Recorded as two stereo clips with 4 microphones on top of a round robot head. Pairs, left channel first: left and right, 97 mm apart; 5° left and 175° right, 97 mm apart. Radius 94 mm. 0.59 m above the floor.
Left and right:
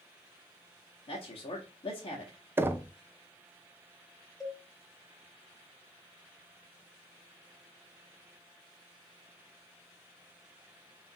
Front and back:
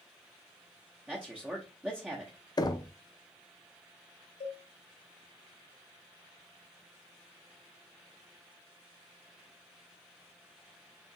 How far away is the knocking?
About 0.6 m.